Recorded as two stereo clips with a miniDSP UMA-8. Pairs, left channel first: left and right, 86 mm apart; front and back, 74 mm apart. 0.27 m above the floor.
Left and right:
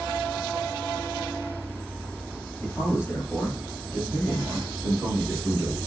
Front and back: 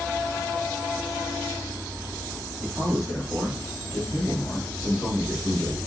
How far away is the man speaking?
About 1.3 m.